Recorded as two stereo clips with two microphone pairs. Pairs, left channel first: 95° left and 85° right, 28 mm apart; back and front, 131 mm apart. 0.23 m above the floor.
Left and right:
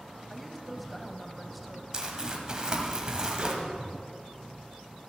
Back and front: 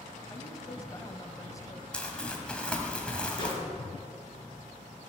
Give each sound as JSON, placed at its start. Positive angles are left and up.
{"t": 0.3, "sound": "a woman speaking", "azimuth_deg": 180, "distance_m": 1.1}
{"t": 1.9, "sound": "crumpling", "azimuth_deg": -110, "distance_m": 1.4}
{"t": 3.4, "sound": "a microwave", "azimuth_deg": -130, "distance_m": 3.0}